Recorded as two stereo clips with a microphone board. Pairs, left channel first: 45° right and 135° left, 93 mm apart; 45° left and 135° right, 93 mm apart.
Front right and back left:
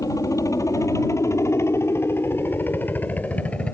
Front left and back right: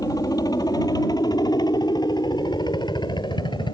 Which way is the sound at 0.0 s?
5° left.